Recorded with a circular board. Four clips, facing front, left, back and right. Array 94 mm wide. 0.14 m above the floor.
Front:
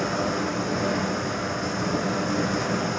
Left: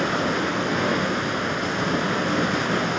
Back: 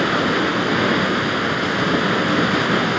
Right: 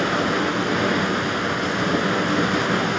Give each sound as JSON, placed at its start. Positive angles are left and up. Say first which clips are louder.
{"t": 0.0, "sound": "running water", "louder": "right 2 dB, back 7 dB", "azimuth_deg": -175, "distance_m": 1.1}